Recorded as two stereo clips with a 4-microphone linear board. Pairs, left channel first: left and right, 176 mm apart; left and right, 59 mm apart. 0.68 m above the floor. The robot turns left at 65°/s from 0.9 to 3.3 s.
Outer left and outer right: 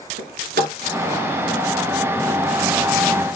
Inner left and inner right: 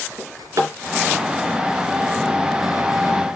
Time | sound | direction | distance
0.2 | a drawer | 80° right | 3.5 m